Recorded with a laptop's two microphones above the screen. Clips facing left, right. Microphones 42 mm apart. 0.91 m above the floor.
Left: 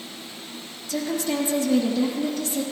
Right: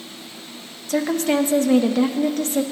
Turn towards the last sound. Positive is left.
turn(degrees=-55)  # may be behind; listen again after turning